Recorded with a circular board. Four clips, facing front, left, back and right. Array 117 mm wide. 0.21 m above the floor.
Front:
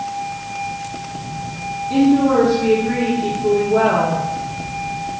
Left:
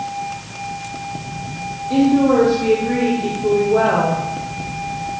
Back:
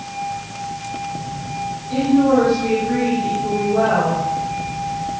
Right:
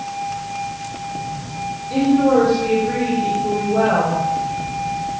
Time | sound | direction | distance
1.9 | a woman speaking | 65° left | 6.5 m